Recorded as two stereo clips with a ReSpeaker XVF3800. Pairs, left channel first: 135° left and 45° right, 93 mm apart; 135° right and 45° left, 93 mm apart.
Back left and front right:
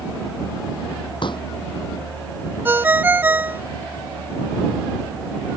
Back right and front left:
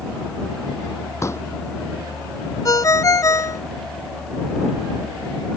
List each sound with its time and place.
1.2 s a pop: 165° left
2.6 s a ringtone: 105° right